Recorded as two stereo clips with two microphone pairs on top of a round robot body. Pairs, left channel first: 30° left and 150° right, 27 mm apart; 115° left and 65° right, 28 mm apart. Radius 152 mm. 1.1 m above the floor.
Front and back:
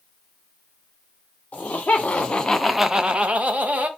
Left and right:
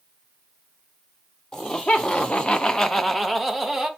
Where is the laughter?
60° left, 0.9 m; by 3.9 s 140° right, 0.9 m.